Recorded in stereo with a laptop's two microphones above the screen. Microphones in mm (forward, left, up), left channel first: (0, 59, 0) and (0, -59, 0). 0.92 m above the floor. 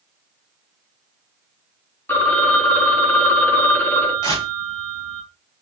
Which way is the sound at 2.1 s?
20° left (ahead or behind).